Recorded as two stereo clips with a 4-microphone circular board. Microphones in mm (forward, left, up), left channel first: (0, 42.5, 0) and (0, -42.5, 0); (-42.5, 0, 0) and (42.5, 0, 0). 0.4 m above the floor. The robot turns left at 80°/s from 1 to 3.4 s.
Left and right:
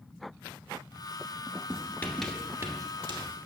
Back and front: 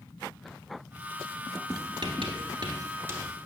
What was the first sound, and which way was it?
Writing, 45° left.